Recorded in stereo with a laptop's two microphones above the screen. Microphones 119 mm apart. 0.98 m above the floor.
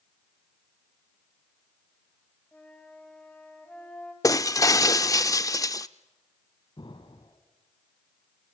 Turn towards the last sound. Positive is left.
turn(degrees=45)  # may be behind; listen again after turning